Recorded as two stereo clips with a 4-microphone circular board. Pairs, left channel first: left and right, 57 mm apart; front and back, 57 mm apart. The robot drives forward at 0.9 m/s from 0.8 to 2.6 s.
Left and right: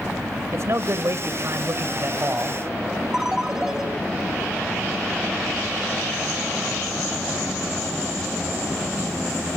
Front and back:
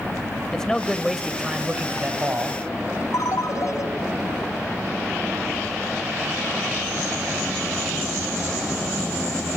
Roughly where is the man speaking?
Right.